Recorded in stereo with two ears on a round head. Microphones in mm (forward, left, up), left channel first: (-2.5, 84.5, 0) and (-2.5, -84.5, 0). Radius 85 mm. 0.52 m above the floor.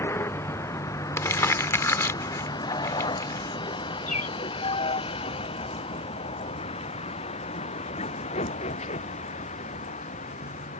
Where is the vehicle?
15° left (ahead or behind); by 10.8 s 40° left (ahead or behind).